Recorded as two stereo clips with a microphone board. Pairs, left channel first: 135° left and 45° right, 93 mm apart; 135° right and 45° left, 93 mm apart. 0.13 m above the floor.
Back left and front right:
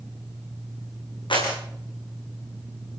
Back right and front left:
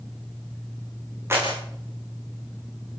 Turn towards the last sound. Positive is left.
turn(degrees=105)